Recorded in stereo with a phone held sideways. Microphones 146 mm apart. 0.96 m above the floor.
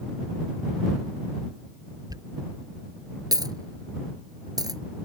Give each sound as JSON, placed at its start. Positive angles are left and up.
{"t": 2.1, "sound": "a dropped coin", "side_deg": -25}